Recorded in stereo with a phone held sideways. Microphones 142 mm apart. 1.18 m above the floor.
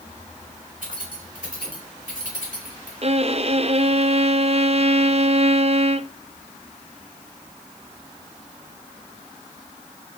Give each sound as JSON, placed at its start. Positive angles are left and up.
{"t": 0.8, "sound": "keys jangling", "side_deg": -70, "distance_m": 4.5}
{"t": 3.0, "sound": "a violin", "side_deg": -45, "distance_m": 0.6}